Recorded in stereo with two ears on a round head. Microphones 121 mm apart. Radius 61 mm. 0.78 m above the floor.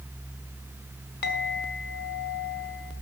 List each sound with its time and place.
1.2 s a clink: 80° left, 2 m